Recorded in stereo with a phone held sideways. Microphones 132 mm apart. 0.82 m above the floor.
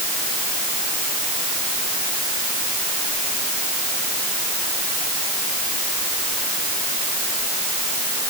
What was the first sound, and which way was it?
Only background noise.